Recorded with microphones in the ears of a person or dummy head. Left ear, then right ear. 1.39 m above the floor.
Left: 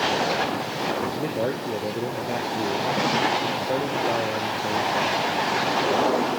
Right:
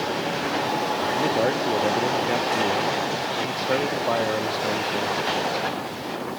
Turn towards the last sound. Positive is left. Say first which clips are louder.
# right 5 dB
turn(degrees=-45)  # may be behind; listen again after turning